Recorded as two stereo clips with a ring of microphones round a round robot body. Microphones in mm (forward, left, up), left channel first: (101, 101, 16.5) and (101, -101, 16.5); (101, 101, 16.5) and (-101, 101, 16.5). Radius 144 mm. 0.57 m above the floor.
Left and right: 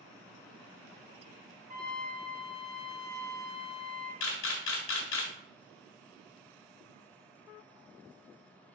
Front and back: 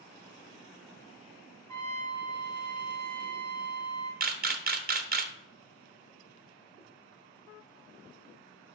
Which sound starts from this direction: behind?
A trumpet, at 1.7 s.